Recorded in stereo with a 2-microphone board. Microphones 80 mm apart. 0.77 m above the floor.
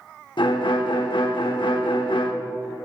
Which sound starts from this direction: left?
A violin, at 0.4 s.